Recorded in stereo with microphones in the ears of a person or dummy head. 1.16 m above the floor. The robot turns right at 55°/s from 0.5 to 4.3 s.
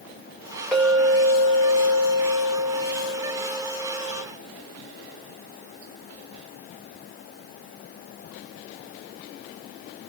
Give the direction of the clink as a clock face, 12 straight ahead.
6 o'clock.